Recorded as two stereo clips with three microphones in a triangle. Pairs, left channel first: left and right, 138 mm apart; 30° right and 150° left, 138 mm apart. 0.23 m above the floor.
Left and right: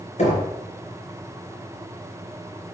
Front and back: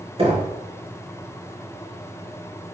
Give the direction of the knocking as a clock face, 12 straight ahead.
8 o'clock.